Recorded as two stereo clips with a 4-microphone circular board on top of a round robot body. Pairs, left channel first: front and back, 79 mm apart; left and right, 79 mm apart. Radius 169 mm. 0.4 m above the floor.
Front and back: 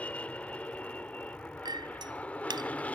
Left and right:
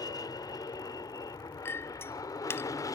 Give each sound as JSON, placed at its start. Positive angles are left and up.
{"t": 0.0, "sound": "an aircraft", "azimuth_deg": 70}
{"t": 1.6, "sound": "a clink", "azimuth_deg": 150}